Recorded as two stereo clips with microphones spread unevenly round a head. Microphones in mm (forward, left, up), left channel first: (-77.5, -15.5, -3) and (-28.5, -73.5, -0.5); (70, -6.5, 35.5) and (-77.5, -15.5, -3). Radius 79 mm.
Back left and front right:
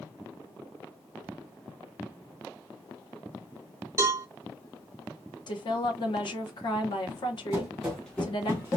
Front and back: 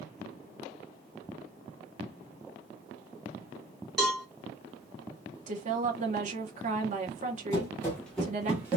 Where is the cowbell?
60° right, 1.2 m.